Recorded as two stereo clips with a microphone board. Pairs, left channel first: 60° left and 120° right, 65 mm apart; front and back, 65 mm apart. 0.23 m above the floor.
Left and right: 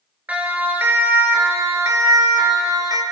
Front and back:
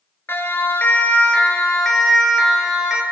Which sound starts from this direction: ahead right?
A siren, at 0.3 s.